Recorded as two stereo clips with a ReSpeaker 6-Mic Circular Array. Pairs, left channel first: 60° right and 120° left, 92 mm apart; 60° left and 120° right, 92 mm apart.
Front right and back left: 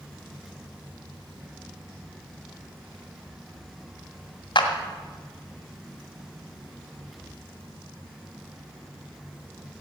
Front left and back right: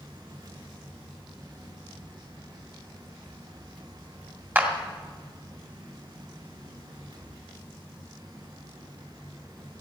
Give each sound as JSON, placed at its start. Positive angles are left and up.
{"t": 4.5, "sound": "a clap", "azimuth_deg": -55, "distance_m": 2.0}